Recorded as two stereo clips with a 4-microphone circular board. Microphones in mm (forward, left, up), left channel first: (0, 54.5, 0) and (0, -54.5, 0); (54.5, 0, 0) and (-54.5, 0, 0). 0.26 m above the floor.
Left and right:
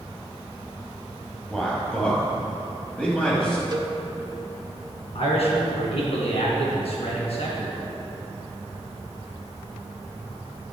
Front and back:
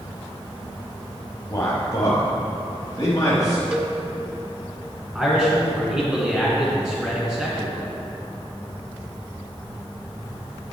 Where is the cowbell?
105° right, 0.6 m.